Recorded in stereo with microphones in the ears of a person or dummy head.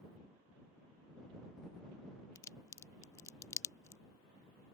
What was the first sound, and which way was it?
A crack, 15° left (ahead or behind).